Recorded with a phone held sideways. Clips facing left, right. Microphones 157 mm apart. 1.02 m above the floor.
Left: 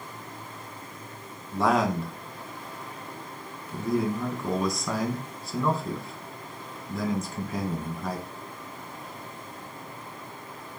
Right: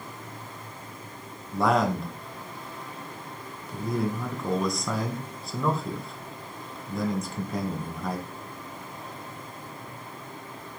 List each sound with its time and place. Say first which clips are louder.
1.5 s a man speaking: even; centre (ahead or behind), 1.0 m